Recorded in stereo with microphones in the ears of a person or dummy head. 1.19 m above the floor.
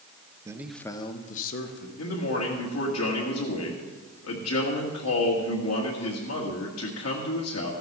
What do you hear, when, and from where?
0.5 s a man speaking: 20° right (ahead or behind), 0.9 m; by 1.9 s 60° left (ahead or behind), 1.5 m
2.0 s a man speaking: 80° left, 1.8 m